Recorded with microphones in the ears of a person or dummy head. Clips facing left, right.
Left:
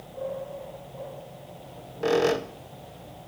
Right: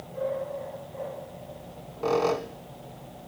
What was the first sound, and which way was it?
A squeak, 15° left (ahead or behind).